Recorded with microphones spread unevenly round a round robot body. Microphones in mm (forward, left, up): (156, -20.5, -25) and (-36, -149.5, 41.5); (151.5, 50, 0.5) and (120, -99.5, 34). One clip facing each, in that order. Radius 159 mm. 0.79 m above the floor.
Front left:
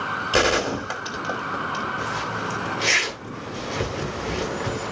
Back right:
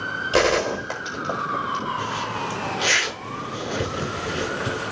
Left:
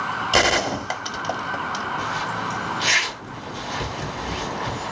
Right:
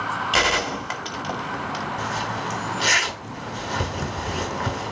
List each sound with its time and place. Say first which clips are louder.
0.3 s a gunshot: back right 2 dB, left 5 dB; 100° left, 1.1 m
2.0 s a zipper: even, even; 75° right, 6 m